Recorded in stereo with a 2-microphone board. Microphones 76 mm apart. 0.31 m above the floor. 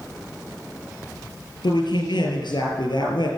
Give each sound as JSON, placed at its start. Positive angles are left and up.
{"t": 1.6, "sound": "a man speaking", "side_deg": 80, "distance_m": 4.5}